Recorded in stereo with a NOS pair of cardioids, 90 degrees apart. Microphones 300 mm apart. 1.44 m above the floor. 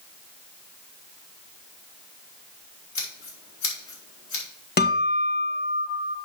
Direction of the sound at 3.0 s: 70° left.